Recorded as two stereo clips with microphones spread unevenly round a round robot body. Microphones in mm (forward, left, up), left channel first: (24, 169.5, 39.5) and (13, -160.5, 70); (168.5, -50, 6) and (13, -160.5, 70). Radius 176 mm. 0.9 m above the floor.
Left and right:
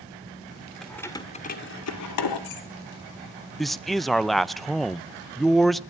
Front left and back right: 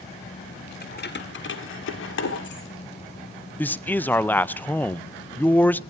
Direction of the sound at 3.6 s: 10° left.